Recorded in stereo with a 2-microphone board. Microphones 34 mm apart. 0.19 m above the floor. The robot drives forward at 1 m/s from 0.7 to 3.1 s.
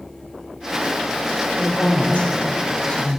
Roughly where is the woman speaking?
Left.